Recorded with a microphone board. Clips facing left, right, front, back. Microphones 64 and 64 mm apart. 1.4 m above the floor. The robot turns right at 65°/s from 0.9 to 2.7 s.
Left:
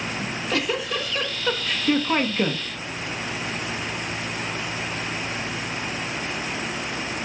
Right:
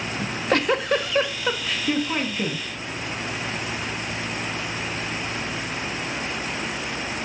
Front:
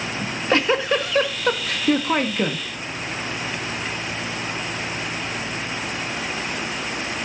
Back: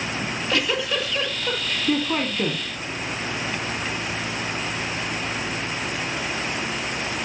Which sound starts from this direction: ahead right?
A giggle, at 0.2 s.